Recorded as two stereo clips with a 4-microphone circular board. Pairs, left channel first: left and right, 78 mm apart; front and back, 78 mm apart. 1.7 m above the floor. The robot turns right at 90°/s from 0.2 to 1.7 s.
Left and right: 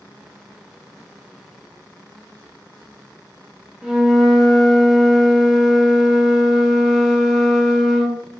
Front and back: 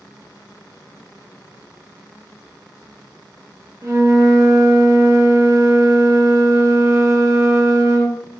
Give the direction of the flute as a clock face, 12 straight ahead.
6 o'clock.